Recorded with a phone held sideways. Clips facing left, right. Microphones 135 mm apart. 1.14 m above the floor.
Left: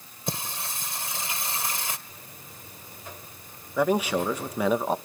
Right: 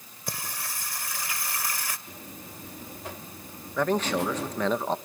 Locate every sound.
0.3 s singing: 25° left (ahead or behind), 1.8 m
2.1 s a buzzer: 75° right (ahead or behind), 3 m
3.8 s a man speaking: 10° left (ahead or behind), 1.0 m